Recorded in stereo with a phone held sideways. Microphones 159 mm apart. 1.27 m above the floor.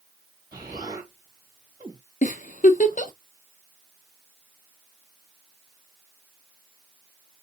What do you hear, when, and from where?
0.5 s an explosion: 25° right (ahead or behind), 2 m
2.2 s a giggle: 55° left (ahead or behind), 0.7 m